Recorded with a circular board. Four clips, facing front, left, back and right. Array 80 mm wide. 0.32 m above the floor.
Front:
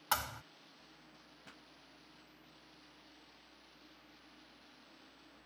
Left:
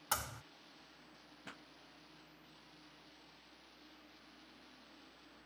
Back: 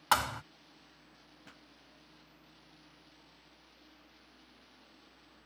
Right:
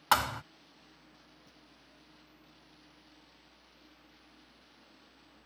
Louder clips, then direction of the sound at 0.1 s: Right 14 dB, back 8 dB; 120° right.